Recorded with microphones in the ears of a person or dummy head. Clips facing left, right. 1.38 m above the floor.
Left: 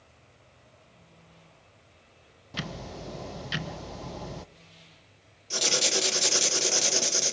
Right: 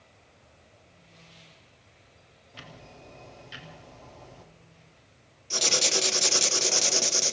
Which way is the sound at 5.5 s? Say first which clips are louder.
Even; 5° left (ahead or behind).